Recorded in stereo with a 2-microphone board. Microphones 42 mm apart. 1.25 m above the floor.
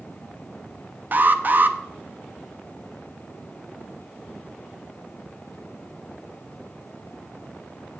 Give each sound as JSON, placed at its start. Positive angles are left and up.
{"t": 1.1, "sound": "an alarm", "side_deg": -45, "distance_m": 0.8}